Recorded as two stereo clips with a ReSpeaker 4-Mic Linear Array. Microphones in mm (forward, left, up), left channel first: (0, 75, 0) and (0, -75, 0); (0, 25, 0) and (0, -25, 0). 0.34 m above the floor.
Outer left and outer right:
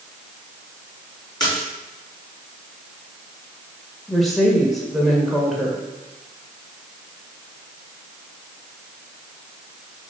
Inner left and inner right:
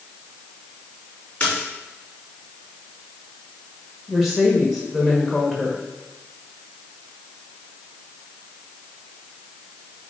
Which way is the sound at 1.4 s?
30° left (ahead or behind).